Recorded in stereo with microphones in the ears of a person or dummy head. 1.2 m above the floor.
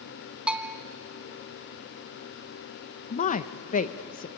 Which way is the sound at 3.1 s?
45° left (ahead or behind).